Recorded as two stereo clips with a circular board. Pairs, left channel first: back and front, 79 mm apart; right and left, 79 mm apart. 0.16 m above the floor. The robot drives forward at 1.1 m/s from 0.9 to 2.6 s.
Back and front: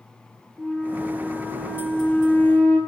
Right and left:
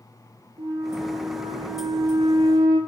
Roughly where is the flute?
Left.